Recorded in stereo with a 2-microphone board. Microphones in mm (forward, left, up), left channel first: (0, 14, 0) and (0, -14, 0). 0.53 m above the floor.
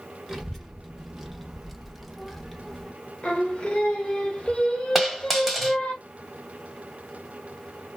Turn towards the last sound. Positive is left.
turn(degrees=-5)  # may be behind; listen again after turning